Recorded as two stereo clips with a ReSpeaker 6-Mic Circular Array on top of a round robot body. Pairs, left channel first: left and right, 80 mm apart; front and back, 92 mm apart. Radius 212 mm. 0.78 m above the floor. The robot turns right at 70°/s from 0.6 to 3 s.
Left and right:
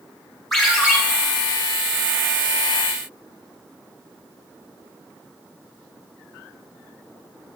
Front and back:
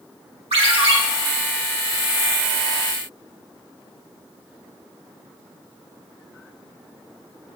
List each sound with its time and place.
0.5 s a ringtone: 175° left, 1.7 m; by 1.0 s 155° right, 1.7 m